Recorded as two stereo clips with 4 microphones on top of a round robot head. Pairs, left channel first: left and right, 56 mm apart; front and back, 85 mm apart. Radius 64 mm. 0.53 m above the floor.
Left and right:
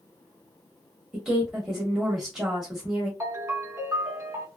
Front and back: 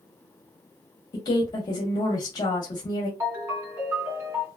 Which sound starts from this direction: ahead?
A woman speaking, at 1.1 s.